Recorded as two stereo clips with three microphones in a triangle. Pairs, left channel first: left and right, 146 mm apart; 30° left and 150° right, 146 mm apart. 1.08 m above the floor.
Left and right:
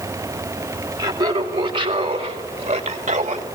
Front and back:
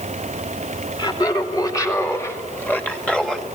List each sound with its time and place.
1.0 s laughter: 30° right, 2.5 m; by 3.5 s 60° right, 1.9 m